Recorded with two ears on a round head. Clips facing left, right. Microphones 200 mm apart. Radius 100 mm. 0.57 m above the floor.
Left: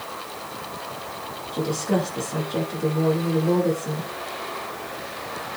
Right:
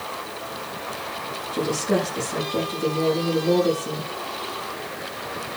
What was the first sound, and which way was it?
A woman speaking, 5° right (ahead or behind).